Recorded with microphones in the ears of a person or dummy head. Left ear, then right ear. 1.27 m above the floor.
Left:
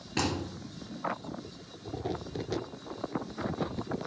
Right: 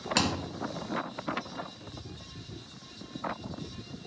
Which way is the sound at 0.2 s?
55° right (ahead or behind).